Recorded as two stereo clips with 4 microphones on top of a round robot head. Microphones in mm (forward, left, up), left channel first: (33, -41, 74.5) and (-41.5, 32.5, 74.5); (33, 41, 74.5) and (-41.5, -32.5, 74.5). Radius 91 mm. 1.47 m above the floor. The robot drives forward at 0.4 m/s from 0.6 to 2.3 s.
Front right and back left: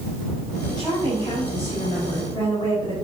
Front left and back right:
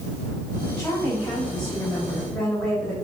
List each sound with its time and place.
0.7 s a woman speaking: 30° right, 2.5 m; by 2.9 s 40° right, 2 m